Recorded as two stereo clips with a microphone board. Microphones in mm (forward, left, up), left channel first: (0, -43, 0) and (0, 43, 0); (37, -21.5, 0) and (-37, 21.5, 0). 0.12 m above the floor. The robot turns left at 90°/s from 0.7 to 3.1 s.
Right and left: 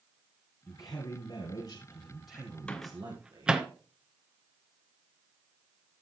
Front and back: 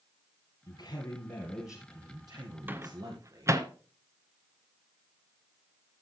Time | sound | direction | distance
0.7 | a man speaking | 40° right | 2.5 m
2.7 | a microwave | 160° right | 1.0 m